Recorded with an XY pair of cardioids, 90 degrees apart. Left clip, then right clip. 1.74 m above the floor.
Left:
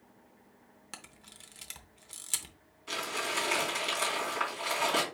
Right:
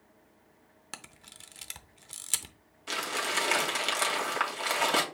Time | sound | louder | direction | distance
0.9 | a camera shutter | right 3 dB | 30° right | 0.7 m
2.9 | crumpling | right 2 dB | 55° right | 2 m